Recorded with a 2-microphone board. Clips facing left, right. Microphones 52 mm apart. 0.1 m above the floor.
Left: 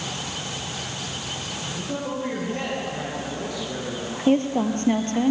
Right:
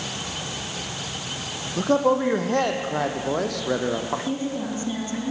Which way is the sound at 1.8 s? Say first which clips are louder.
Right 11 dB; 65° right (ahead or behind).